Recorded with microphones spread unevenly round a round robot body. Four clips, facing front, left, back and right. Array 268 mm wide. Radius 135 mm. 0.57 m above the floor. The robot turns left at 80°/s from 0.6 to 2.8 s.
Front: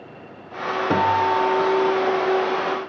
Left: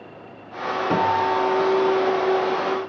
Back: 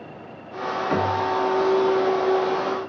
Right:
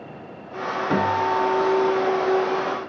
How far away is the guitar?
About 1.5 m.